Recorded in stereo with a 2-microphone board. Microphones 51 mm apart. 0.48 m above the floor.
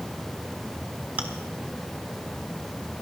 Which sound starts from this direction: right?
Chewing, at 1.2 s.